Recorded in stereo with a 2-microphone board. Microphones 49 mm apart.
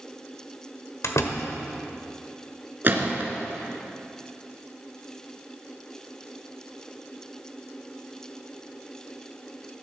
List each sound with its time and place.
1.0 s a door slam: 85° left, 1.7 m
2.8 s a gunshot: 45° right (ahead or behind), 2 m